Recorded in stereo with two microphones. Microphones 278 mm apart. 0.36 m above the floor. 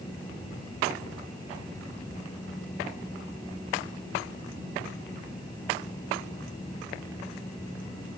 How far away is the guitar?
I don't hear a guitar.